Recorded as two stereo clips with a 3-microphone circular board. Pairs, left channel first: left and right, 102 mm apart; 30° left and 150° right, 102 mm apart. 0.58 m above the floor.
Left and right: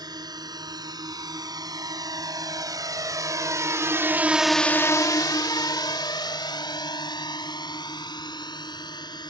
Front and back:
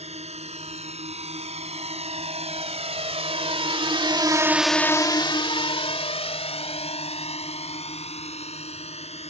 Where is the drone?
140° right; by 9.3 s 40° left.